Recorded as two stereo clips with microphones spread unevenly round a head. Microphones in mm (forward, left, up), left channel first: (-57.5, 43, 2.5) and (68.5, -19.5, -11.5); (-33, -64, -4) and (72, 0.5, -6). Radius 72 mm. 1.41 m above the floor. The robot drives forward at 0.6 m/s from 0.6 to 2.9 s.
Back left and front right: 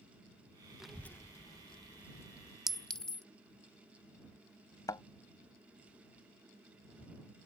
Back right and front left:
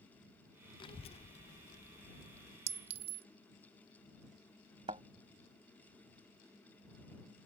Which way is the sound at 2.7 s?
65° left.